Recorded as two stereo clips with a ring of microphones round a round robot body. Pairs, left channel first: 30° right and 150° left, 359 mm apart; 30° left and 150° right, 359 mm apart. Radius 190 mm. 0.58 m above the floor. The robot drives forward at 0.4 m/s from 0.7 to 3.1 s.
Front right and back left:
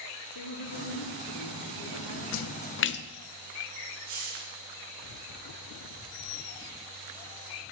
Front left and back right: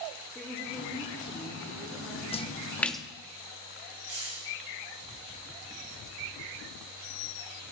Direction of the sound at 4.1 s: 160° left.